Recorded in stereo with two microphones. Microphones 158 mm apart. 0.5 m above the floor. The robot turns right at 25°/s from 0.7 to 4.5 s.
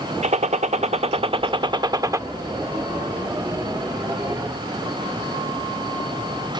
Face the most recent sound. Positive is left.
turn(degrees=30)